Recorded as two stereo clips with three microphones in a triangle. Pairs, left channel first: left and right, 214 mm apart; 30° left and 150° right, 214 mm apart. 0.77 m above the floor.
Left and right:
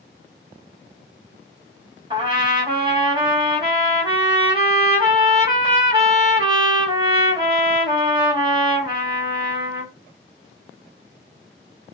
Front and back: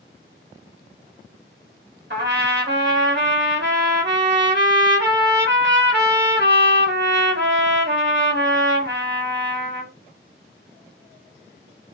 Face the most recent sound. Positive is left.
turn(degrees=-150)